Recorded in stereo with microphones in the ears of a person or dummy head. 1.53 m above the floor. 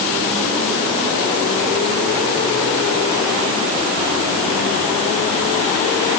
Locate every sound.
Only background noise.